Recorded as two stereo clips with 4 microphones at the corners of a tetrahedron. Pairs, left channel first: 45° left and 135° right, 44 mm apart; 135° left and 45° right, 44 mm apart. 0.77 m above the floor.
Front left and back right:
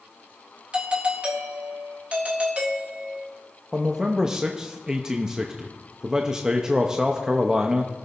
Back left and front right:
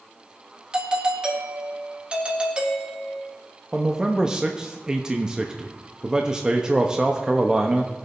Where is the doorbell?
90° right, 1.5 m.